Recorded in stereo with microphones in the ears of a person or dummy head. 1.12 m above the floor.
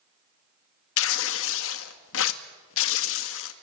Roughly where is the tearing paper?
Left.